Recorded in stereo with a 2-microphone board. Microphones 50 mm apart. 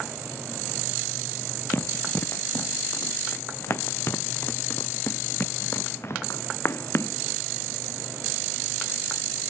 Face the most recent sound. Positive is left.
turn(degrees=55)  # may be behind; listen again after turning